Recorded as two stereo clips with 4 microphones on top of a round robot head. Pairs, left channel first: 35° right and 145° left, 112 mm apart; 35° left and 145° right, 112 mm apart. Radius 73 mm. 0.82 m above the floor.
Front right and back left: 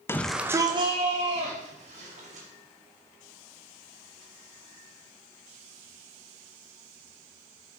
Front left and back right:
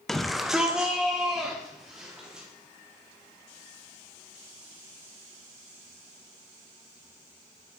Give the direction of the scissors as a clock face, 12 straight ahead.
I don't hear scissors.